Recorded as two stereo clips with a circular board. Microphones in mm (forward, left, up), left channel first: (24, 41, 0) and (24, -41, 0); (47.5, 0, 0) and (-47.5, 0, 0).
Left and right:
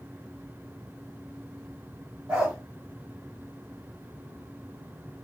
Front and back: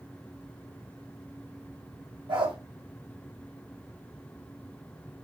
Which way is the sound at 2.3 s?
170° right.